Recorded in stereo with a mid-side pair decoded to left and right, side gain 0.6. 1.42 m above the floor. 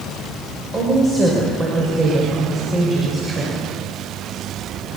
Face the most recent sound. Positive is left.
turn(degrees=-30)